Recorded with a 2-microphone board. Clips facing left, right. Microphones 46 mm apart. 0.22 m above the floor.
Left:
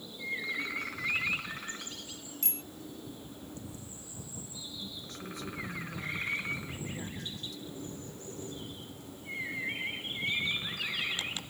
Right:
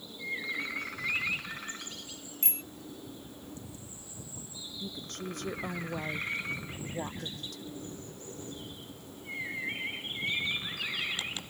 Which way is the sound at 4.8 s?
60° right (ahead or behind).